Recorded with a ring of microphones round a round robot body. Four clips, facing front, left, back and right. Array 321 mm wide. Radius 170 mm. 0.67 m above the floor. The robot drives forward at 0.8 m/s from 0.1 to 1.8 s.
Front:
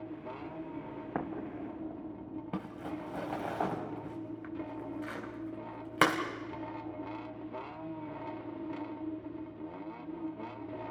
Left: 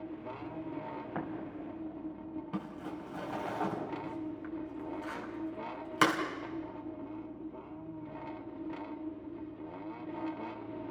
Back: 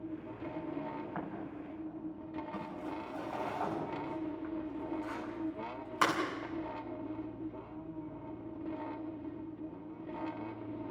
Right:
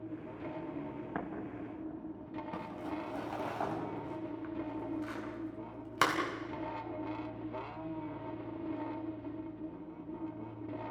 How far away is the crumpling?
About 4.5 m.